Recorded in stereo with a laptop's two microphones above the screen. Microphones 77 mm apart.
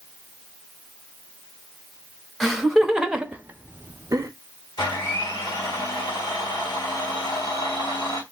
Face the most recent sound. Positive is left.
turn(degrees=70)  # may be behind; listen again after turning